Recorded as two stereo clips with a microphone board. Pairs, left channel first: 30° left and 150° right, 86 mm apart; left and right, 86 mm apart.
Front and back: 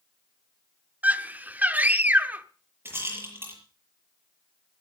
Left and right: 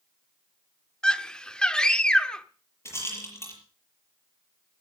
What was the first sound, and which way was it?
A scream, 160° left.